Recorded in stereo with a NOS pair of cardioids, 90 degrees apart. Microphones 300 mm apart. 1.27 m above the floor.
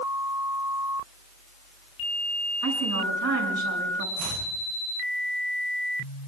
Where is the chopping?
70° right, 8.5 m.